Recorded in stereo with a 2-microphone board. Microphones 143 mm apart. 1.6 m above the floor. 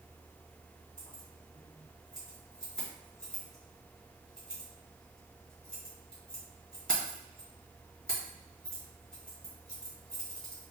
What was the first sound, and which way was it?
Keys jangling, 5° left (ahead or behind).